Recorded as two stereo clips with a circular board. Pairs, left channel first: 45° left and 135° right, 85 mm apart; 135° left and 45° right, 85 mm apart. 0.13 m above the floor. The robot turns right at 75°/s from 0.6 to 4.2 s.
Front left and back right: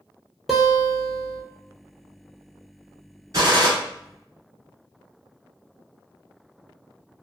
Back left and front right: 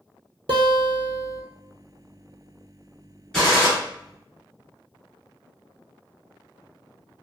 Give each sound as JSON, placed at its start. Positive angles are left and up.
{"t": 0.5, "sound": "a guitar", "azimuth_deg": -45, "distance_m": 0.7}
{"t": 3.3, "sound": "a gunshot", "azimuth_deg": -145, "distance_m": 1.7}